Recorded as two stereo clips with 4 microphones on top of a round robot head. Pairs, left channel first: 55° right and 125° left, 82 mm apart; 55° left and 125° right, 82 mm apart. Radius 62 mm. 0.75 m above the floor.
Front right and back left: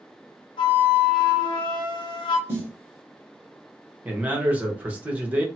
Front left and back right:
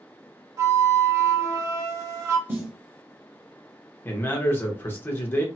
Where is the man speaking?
75° left, 1.0 m.